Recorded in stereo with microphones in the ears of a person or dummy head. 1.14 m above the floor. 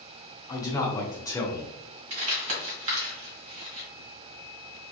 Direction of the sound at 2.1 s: 45° right (ahead or behind).